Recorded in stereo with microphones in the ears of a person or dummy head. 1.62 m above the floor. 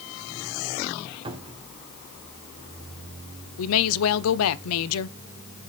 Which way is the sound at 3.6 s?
75° left (ahead or behind).